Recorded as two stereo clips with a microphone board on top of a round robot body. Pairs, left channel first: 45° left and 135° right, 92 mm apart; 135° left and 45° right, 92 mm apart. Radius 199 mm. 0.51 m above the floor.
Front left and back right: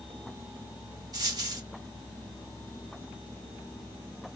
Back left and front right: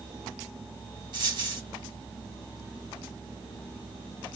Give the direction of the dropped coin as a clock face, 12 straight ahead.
3 o'clock.